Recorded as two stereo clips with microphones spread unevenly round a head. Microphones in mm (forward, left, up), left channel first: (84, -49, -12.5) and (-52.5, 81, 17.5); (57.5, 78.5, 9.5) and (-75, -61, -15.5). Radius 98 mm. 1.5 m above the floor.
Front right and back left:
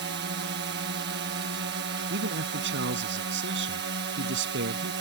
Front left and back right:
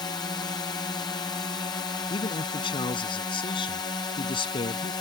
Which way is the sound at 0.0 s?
120° left.